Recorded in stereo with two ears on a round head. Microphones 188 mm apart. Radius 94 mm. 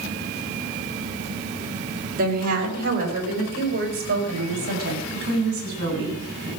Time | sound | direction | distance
2.2 | a woman speaking | 45° right (ahead or behind) | 4.5 m